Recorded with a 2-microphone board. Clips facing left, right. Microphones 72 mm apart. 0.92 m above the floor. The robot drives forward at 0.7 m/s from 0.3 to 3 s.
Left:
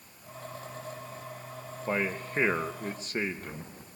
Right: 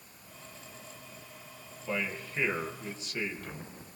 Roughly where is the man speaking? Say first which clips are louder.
Left 4 dB; left.